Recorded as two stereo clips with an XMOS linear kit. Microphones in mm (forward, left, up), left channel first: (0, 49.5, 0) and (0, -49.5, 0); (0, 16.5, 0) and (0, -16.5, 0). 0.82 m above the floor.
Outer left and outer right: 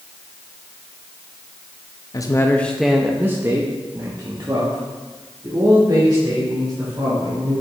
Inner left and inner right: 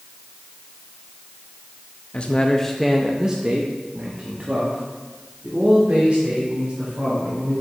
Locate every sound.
2.1 s a man speaking: 40° left (ahead or behind), 0.5 m; by 7.6 s 50° right (ahead or behind), 3 m